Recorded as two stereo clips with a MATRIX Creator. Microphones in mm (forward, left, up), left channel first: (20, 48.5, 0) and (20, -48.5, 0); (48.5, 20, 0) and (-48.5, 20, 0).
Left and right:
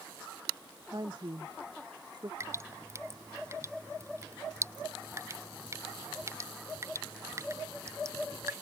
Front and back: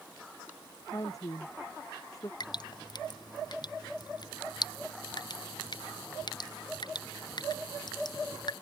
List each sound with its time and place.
0.9 s a woman speaking: 50° right
2.4 s dripping: 35° right